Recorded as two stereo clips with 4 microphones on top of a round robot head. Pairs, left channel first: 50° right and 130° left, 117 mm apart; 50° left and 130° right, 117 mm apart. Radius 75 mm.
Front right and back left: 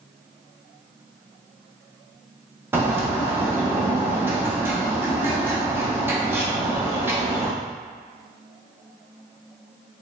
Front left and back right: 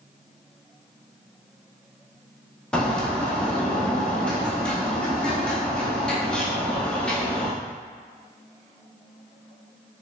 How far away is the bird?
About 0.7 m.